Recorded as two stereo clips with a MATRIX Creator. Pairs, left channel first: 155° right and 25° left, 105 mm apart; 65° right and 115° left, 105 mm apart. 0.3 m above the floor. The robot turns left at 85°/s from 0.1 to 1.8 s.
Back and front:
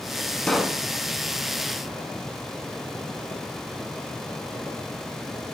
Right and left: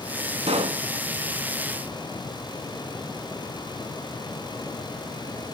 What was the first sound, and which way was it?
A pop, 120° left.